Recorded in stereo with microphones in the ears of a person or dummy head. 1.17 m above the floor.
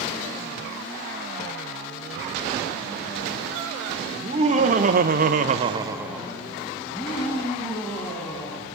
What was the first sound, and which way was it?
Laughter, 25° right (ahead or behind).